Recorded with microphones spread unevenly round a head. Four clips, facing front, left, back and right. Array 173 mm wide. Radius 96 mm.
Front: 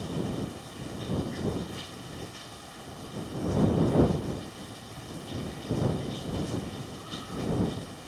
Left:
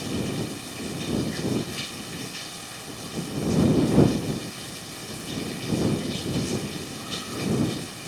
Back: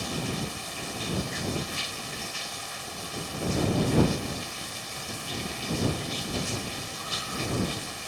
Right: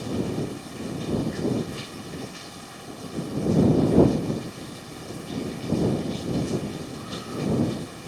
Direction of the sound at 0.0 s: 170° left.